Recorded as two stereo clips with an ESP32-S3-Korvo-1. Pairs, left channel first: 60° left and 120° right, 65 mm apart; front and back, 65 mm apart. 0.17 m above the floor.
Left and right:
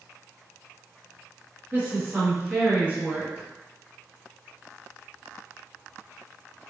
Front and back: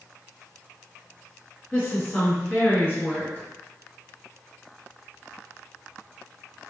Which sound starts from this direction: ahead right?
A woman speaking, at 1.7 s.